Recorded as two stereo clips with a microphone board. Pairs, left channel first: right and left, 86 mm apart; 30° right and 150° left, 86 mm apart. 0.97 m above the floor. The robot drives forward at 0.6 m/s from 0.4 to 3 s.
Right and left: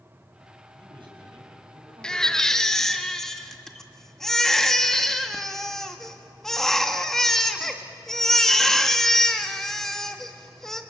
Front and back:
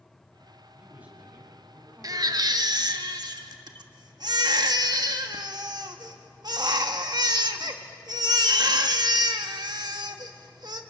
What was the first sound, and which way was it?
A man speaking, 75° left.